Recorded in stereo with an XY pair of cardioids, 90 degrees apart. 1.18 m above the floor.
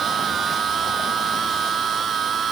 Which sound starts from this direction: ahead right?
A machine running, at 0.0 s.